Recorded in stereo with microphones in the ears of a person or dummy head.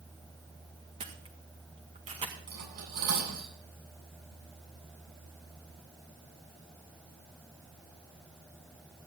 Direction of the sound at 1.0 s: 25° right (ahead or behind).